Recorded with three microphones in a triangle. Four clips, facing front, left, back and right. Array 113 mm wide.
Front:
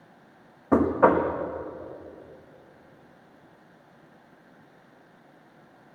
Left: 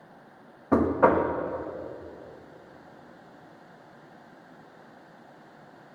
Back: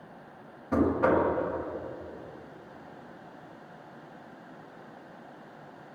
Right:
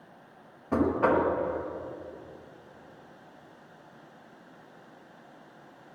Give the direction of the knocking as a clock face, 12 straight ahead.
11 o'clock.